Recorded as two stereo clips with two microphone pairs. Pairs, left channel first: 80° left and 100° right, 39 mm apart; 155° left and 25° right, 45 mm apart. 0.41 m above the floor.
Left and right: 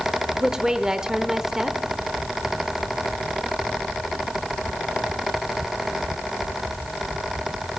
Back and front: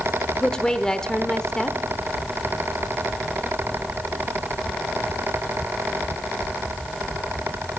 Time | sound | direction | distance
0.4 | a woman speaking | 155° right | 0.8 m